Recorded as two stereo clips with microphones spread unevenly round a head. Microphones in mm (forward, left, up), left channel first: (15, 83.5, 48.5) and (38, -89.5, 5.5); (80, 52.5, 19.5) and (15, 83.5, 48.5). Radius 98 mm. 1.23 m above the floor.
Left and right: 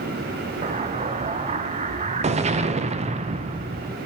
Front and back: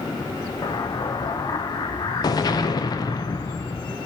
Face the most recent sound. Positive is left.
turn(degrees=-35)